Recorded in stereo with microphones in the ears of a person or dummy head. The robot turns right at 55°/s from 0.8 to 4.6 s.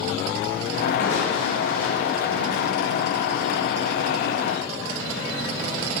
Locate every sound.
1.0 s crushing: 115° left, 5.5 m; by 2.7 s 150° right, 5.5 m